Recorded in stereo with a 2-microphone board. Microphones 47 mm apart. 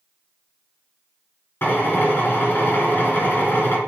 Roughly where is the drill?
Left.